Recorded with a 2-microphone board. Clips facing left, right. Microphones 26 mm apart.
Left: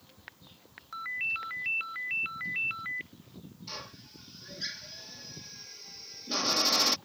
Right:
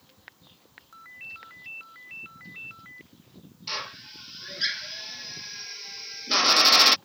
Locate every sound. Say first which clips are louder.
0.9 s a ringtone: left 10 dB; 45° left (ahead or behind)
3.7 s a drill: right 10 dB; 75° right (ahead or behind)